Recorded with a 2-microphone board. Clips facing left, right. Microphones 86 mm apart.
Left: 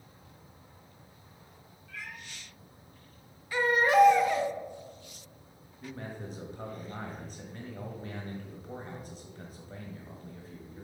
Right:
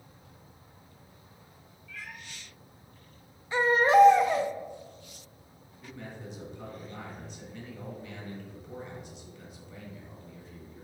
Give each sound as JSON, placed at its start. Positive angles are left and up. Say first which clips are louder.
{"t": 1.9, "sound": "a cat meowing", "louder": "even", "side_deg": 60, "distance_m": 3.0}
{"t": 3.5, "sound": "a baby crying", "louder": "right 3 dB", "side_deg": -25, "distance_m": 0.9}
{"t": 5.8, "sound": "a man speaking", "louder": "left 2 dB", "side_deg": 40, "distance_m": 1.3}